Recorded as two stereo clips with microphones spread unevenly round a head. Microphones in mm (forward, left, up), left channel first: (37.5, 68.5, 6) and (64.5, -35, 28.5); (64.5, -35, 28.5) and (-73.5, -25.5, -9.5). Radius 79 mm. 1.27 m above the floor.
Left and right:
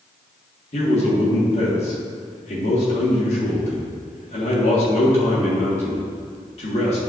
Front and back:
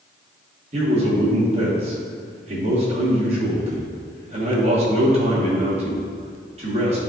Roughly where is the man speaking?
Behind left.